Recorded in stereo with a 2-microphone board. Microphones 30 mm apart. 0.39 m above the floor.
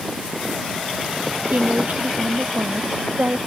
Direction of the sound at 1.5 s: 75° right (ahead or behind).